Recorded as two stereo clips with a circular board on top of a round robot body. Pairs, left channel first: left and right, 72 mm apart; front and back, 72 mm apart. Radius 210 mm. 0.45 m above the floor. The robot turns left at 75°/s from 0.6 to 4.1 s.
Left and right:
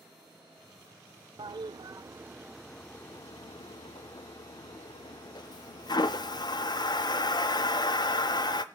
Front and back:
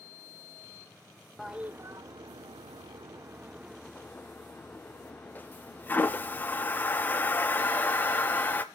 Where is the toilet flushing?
90° right, 0.5 m; by 8.6 s 65° left, 0.5 m.